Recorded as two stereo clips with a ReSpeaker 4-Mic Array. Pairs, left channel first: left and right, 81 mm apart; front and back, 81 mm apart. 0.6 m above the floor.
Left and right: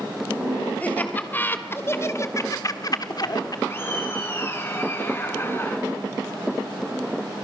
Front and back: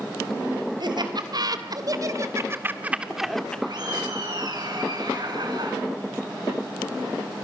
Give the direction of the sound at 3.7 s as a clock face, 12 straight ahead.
7 o'clock.